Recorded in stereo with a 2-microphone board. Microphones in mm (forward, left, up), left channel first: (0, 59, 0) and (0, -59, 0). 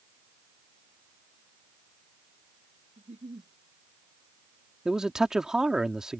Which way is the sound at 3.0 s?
90° right.